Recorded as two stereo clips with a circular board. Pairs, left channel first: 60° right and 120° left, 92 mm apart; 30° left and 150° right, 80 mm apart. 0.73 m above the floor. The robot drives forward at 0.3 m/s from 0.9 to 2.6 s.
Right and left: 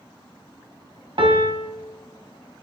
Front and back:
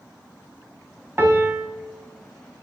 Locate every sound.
1.2 s a piano: 150° left, 0.6 m; by 1.6 s 155° left, 0.8 m